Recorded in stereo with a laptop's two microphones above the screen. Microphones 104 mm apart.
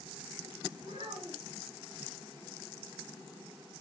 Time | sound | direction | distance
0.8 | a child speaking | 80° right | 4.5 m